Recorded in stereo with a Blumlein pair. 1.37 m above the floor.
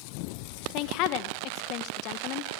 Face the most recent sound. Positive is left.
turn(degrees=40)